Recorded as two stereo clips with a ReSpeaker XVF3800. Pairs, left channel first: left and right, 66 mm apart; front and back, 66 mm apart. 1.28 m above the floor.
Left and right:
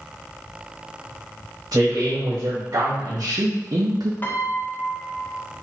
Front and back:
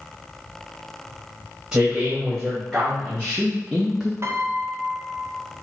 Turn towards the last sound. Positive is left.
turn(degrees=140)